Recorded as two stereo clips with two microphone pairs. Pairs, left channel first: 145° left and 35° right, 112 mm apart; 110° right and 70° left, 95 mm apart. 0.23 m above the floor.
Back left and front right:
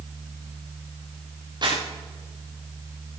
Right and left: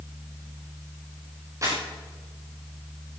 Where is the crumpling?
15° left, 9 m.